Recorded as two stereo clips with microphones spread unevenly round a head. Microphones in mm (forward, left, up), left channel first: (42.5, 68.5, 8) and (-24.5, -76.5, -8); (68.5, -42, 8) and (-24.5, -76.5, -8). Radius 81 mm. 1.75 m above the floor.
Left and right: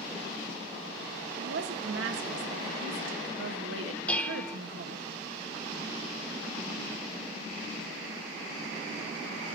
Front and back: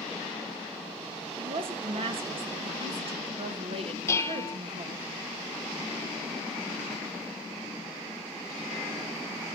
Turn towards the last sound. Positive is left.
turn(degrees=-5)